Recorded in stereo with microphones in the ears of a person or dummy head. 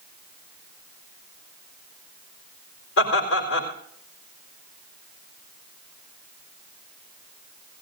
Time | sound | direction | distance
3.0 | laughter | 80° left | 4 m